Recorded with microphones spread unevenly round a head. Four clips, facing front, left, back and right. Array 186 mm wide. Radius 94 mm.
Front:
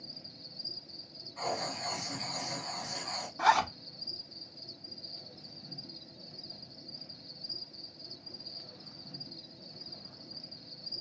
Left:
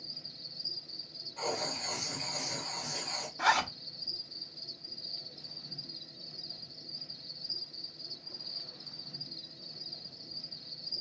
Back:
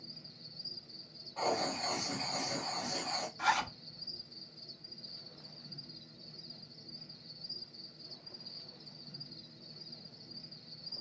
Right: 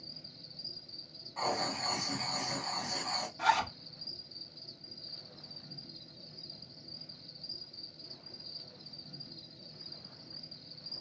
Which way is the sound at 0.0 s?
15° left.